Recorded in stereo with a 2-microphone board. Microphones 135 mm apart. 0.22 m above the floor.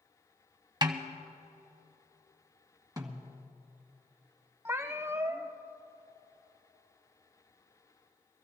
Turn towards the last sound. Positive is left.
turn(degrees=-20)  # may be behind; listen again after turning